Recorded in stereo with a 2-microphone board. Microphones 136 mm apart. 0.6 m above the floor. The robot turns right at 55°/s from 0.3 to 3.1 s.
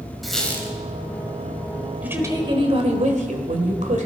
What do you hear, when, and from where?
0.2 s a squeak: centre (ahead or behind), 2 m; by 0.7 s 25° left (ahead or behind), 2 m
2.0 s a woman speaking: 170° right, 2 m; by 4.1 s 110° right, 2 m